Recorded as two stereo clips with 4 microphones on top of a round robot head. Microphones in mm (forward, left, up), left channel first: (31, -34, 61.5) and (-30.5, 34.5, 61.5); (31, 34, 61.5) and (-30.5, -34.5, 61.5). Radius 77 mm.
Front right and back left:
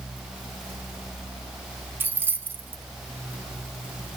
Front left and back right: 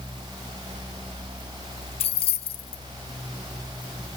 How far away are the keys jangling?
About 0.7 m.